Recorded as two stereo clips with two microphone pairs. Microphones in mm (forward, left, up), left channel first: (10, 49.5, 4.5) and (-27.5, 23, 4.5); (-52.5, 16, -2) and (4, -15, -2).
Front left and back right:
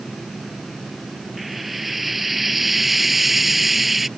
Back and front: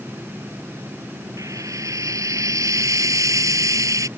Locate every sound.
1.4 s frying: 60° right